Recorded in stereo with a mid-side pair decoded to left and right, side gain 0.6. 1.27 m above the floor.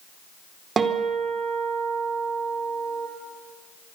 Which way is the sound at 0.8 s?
30° right.